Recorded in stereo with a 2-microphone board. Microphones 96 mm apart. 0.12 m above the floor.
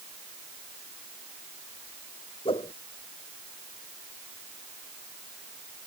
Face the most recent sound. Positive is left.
turn(degrees=75)  # may be behind; listen again after turning